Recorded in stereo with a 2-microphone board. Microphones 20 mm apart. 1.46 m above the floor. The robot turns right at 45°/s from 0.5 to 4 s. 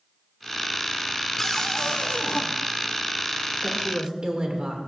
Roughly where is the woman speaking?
Right.